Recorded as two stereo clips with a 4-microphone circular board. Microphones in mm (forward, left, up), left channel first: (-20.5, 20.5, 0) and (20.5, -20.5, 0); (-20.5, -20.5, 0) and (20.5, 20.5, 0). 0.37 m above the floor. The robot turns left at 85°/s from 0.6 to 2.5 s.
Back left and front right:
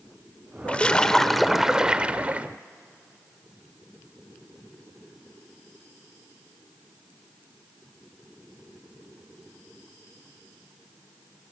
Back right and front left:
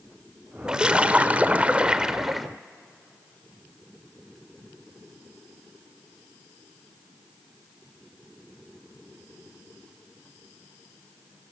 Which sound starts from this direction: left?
A splash, at 0.7 s.